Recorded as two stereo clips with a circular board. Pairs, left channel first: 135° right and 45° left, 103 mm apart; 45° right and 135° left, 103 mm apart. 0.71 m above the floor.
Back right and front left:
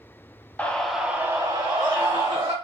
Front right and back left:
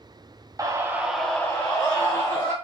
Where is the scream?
160° left, 0.7 m; by 2.5 s straight ahead, 1.4 m.